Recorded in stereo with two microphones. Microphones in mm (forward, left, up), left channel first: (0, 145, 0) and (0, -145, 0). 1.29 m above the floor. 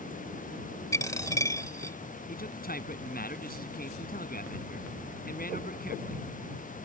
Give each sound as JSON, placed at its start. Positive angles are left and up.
{"t": 0.9, "sound": "a dropped coin", "side_deg": 10}
{"t": 2.3, "sound": "a man speaking", "side_deg": 30}